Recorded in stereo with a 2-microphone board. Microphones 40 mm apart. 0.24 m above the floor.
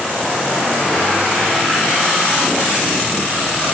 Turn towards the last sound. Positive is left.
No sound to turn to.